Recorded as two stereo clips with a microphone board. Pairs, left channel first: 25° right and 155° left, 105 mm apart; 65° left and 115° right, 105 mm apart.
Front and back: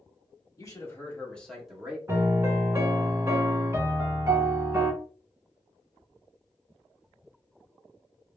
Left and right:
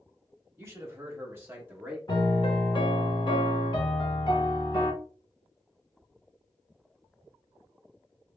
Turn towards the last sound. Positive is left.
turn(degrees=95)